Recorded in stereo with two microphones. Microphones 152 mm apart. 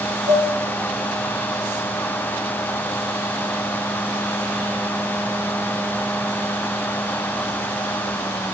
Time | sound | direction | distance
0.3 | dishes clattering | 25° right (ahead or behind) | 4 m